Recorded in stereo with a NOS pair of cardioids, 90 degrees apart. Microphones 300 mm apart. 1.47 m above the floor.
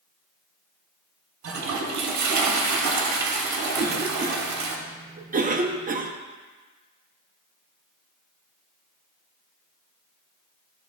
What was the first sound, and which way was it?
A toilet flushing, 70° right.